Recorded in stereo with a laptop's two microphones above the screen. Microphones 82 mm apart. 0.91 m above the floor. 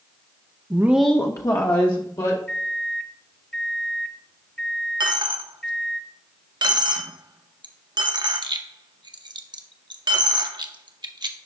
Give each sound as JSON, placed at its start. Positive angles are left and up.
{"t": 0.7, "sound": "a woman speaking", "side_deg": -40, "distance_m": 0.6}
{"t": 2.5, "sound": "a microwave", "side_deg": 15, "distance_m": 1.0}
{"t": 5.0, "sound": "a dropped coin", "side_deg": -65, "distance_m": 0.6}